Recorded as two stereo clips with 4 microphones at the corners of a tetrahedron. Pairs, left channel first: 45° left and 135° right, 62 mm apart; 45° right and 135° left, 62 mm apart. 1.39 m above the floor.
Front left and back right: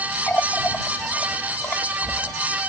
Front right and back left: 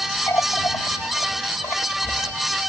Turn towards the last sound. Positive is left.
turn(degrees=-10)